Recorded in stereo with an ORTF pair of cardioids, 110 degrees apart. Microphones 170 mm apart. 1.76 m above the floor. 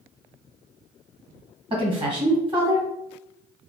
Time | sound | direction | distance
1.7 | a woman speaking | 30° right | 1.9 m